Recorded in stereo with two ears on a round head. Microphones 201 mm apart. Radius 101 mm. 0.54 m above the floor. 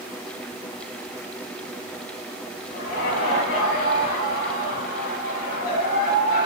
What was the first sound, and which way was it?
Laughter, 65° left (ahead or behind).